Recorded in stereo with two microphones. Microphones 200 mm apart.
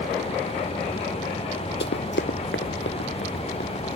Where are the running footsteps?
65° left (ahead or behind).